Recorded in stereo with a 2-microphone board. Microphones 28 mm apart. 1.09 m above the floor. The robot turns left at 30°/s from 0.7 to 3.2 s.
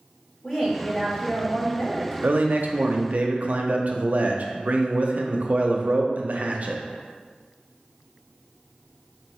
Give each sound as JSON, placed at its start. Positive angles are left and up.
{"t": 0.4, "sound": "a woman speaking", "azimuth_deg": 145, "distance_m": 1.2}
{"t": 2.2, "sound": "a man speaking", "side_deg": -80, "distance_m": 0.5}